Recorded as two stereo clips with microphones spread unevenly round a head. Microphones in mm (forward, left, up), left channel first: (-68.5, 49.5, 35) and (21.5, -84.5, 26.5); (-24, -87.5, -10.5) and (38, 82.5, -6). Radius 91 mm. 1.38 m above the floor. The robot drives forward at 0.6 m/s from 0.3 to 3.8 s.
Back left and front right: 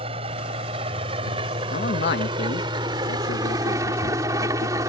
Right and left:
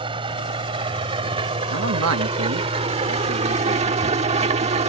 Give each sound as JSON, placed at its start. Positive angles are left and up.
{"t": 0.0, "sound": "an engine running", "azimuth_deg": 5}
{"t": 1.7, "sound": "a man speaking", "azimuth_deg": 80}